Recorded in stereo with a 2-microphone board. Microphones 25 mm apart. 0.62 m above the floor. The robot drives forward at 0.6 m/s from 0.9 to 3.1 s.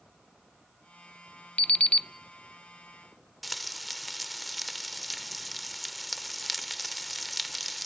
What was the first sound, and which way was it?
An alarm clock, 50° left (ahead or behind).